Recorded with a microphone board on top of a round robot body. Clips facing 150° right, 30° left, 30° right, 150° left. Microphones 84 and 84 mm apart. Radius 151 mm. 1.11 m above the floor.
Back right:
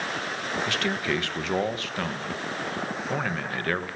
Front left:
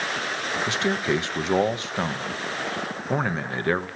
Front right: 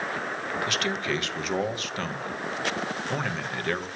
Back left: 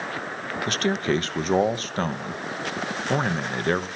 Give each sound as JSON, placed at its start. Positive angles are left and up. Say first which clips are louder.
{"t": 0.7, "sound": "a man speaking", "louder": "front left 5 dB, back left 8 dB", "azimuth_deg": 100, "distance_m": 1.3}